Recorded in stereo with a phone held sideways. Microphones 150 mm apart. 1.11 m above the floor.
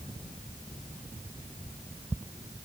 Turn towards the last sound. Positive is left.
No sound to turn to.